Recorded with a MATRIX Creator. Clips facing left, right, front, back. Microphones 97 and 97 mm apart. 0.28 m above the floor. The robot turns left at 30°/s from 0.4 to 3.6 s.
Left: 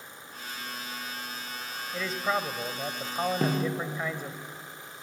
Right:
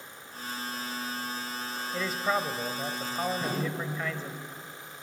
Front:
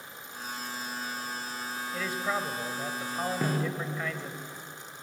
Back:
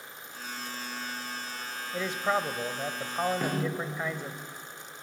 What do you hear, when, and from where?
1.9 s a man speaking: 170° right, 0.9 m; by 4.4 s 140° left, 0.9 m
3.4 s a snare drum: 85° left, 5.5 m; by 3.8 s 80° left, 5.5 m